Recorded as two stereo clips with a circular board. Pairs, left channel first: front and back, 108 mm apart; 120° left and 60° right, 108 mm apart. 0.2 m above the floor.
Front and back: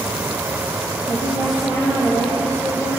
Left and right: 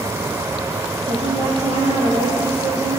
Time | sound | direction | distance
1.1 | a woman speaking | 75° right | 6 m